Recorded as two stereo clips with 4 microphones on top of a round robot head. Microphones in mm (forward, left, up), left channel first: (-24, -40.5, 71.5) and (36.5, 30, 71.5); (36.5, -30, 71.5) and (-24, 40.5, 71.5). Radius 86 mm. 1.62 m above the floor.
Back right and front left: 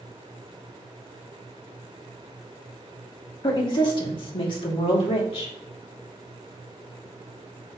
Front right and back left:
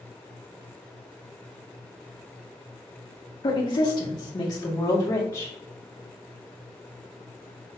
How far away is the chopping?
I don't hear chopping.